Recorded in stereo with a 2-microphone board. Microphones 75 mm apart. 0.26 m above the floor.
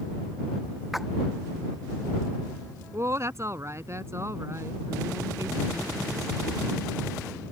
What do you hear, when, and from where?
0.9 s a splash: centre (ahead or behind)
2.9 s a woman speaking: 40° right (ahead or behind)